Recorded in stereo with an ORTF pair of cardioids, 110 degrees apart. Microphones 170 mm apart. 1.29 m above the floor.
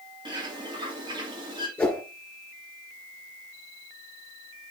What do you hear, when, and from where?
0.2 s a bird: 25° right, 2.5 m
1.8 s a whoosh: 10° left, 3.5 m